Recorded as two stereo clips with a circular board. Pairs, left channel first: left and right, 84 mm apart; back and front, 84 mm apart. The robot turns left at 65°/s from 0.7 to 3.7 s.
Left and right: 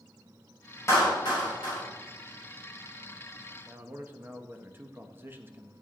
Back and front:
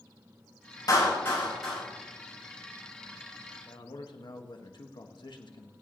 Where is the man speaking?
150° right, 1.4 m; by 5.7 s 155° right, 1.4 m.